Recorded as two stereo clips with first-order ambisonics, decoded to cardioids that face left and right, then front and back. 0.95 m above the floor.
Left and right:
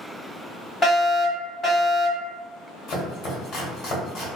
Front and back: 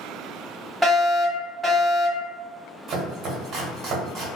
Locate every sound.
0.8 s a fire alarm: 90° left, 1.2 m
2.9 s chopping: 125° left, 1.4 m